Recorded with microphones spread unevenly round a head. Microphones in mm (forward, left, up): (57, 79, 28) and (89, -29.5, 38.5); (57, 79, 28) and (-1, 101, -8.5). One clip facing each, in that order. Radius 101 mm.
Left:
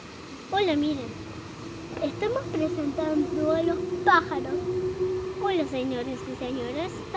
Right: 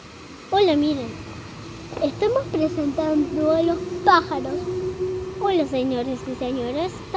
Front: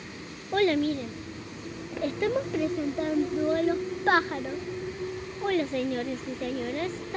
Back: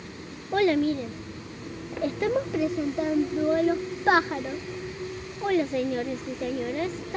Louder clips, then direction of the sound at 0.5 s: Right 6 dB, back 2 dB; 60° right.